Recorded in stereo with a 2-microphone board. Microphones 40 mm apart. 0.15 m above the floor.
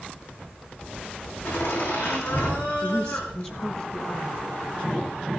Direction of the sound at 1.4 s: 70° left (ahead or behind).